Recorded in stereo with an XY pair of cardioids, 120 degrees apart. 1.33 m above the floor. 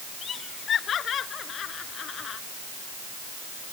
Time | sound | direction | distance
0.2 | laughter | 45° left | ?